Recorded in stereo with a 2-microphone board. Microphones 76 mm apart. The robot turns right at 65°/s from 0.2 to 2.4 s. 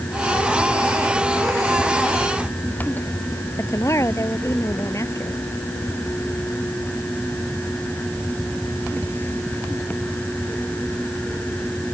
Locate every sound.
3.6 s a woman speaking: 40° left (ahead or behind)